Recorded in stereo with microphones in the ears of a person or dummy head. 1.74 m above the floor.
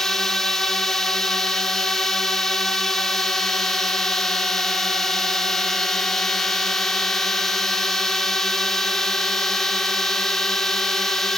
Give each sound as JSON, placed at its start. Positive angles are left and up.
{"t": 0.0, "sound": "a drone", "side_deg": 10}